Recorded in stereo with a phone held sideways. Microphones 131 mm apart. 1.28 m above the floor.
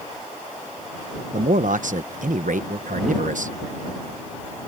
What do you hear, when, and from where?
1.3 s a man speaking: 75° right (ahead or behind)